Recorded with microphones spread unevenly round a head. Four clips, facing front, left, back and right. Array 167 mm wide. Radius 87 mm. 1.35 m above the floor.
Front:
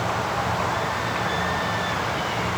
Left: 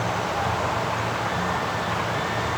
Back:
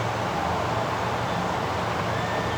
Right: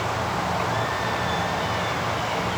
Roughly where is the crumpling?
No crumpling in this recording.